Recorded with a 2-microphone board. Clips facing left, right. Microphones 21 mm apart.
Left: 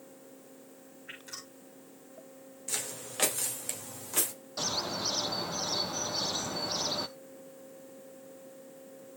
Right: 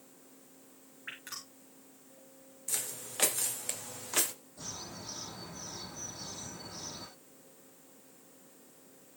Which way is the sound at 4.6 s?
70° left (ahead or behind).